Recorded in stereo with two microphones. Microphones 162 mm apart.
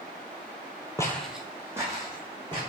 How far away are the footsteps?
About 0.5 m.